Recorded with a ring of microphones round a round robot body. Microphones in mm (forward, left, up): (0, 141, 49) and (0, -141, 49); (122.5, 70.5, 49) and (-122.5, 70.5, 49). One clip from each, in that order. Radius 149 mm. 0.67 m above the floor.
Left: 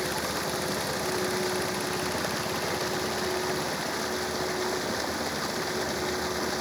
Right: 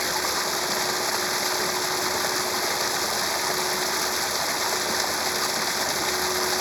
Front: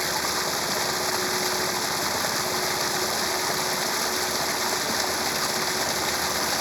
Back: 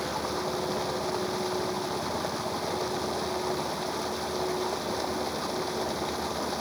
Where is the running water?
50° right.